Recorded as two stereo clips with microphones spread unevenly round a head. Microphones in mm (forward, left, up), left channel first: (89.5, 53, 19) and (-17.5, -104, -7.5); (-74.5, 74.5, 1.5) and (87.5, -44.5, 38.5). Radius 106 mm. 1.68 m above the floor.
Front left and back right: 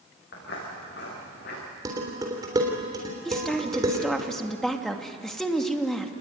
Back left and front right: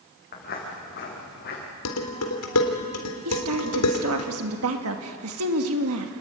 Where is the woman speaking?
30° right, 2.5 m.